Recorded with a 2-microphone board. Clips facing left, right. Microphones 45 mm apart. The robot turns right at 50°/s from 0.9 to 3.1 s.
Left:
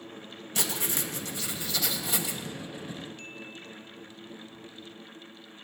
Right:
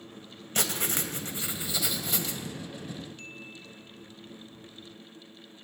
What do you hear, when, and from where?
0.6 s writing: 60° right, 2.5 m; by 2.4 s 15° left, 2.5 m